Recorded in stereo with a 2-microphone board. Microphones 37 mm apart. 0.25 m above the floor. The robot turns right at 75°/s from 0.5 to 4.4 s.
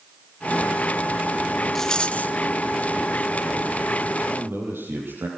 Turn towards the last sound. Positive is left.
turn(degrees=-75)  # may be behind; listen again after turning